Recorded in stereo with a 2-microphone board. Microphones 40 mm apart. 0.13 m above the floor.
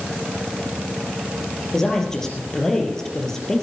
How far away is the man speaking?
About 3.5 m.